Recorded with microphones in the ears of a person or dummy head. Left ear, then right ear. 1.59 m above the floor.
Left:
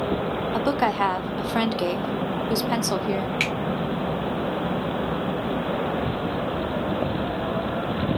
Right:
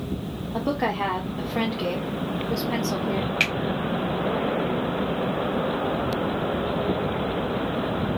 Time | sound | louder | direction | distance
0.5 | a woman speaking | left 2 dB | 70° left (ahead or behind) | 0.5 m
3.4 | a finger snap | right 3 dB | centre (ahead or behind) | 1.2 m